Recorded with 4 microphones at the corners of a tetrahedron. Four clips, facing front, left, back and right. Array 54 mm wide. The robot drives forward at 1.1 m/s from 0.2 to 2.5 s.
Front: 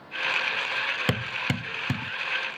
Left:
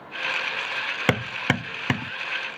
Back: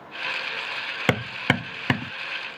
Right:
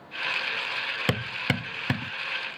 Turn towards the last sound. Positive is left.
turn(degrees=165)